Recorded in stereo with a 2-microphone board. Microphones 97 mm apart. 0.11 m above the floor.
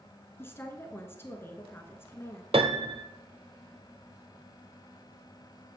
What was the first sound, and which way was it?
A woman speaking, 25° left (ahead or behind).